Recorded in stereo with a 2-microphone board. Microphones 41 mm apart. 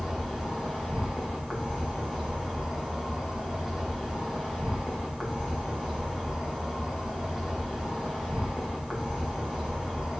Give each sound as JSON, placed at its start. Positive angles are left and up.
{"t": 0.0, "sound": "an insect", "side_deg": -10, "distance_m": 2.0}